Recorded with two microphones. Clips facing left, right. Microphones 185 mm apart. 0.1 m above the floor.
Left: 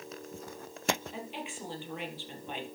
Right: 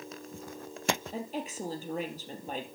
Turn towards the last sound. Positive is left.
turn(degrees=-45)  # may be behind; listen again after turning